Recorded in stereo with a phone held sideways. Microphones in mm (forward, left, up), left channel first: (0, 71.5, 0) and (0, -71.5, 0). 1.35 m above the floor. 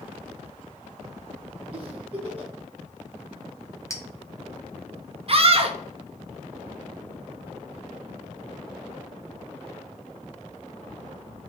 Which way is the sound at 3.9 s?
20° left (ahead or behind).